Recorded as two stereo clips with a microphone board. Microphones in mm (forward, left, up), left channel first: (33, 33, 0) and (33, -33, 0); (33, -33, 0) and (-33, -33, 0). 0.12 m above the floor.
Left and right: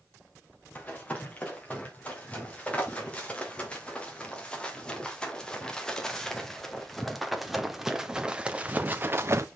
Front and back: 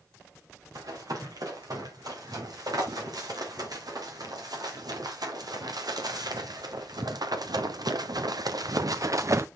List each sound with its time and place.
0.8 s running footsteps: 160° left, 5 m; by 9.5 s 135° right, 0.8 m